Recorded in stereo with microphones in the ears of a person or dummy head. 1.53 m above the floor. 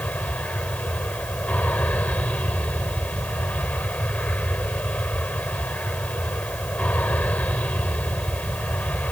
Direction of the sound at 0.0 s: 5° left (ahead or behind).